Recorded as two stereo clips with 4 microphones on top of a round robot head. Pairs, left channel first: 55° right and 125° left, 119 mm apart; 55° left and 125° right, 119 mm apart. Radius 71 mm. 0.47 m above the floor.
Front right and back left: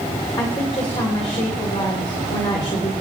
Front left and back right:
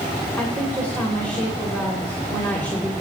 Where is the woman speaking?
20° right, 2 m.